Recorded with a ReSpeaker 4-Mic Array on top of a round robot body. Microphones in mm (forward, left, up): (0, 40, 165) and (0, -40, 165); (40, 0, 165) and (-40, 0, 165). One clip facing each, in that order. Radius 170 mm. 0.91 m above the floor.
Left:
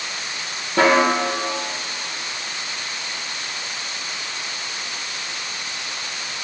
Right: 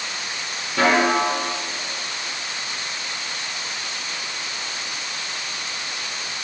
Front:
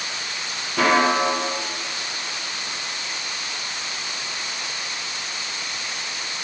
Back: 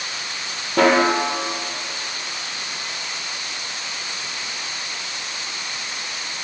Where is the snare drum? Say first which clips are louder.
Left 2 dB, back 2 dB; 145° left, 0.7 m.